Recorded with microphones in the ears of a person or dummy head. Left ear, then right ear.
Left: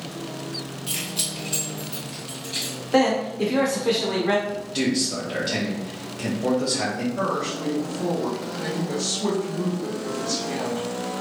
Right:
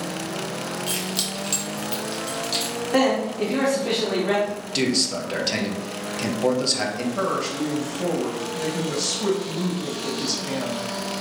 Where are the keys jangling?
10° right (ahead or behind), 1.4 m; by 2.8 s 70° right (ahead or behind), 1.7 m.